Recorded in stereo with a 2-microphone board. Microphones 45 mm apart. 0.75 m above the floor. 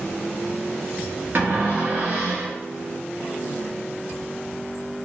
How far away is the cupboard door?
About 0.8 m.